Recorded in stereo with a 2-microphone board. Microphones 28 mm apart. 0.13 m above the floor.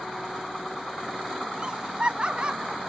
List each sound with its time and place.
1.6 s laughter: 35° right (ahead or behind); by 2.8 s 40° right (ahead or behind)